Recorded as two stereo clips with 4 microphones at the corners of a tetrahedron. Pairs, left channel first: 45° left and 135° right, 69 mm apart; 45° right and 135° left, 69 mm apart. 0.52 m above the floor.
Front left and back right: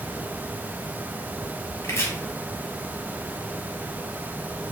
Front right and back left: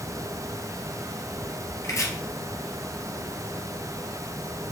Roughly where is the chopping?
Ahead.